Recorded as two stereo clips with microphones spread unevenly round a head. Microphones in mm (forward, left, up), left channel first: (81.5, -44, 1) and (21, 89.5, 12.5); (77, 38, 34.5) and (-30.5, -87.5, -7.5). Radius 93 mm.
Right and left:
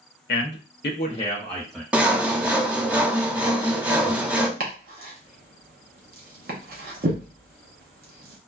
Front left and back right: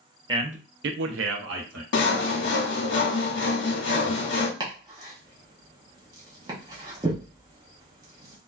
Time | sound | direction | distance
0.3 | a man speaking | 65° right | 0.7 m
1.9 | sawing | 30° left | 0.6 m
4.6 | chopping | 160° left | 0.6 m